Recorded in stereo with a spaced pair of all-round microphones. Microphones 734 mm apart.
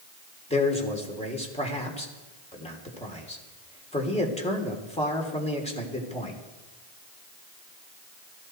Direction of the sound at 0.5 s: 10° left (ahead or behind).